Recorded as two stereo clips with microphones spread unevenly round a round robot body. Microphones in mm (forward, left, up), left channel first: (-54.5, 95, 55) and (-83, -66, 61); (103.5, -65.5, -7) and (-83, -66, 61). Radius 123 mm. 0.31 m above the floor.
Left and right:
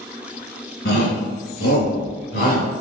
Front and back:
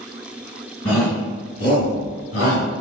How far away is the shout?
About 4 m.